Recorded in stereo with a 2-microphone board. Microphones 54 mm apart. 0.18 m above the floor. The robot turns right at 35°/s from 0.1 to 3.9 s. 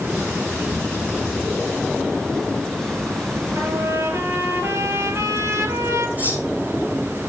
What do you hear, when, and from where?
3.5 s a trumpet: 55° right (ahead or behind), 4.5 m; by 6.1 s 65° right (ahead or behind), 4.5 m
6.2 s cutlery clinking: 30° right (ahead or behind), 7 m